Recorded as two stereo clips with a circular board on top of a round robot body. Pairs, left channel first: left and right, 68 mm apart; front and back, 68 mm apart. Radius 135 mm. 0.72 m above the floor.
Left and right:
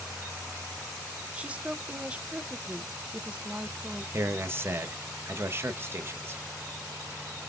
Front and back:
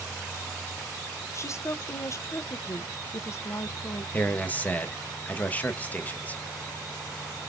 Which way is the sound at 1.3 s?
25° right.